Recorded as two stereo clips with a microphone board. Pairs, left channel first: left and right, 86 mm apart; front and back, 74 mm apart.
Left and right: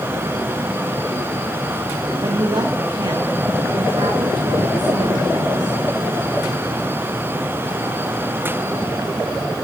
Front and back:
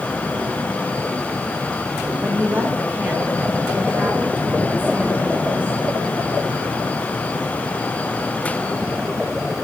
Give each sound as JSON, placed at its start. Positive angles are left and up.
{"t": 2.2, "sound": "a woman speaking", "azimuth_deg": -115, "distance_m": 1.9}